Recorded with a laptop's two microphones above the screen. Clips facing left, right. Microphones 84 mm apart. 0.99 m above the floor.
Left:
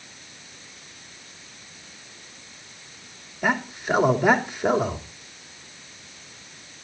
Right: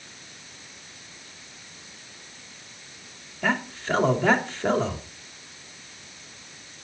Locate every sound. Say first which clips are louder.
3.4 s a man speaking: left 2 dB; 15° left (ahead or behind), 2.5 m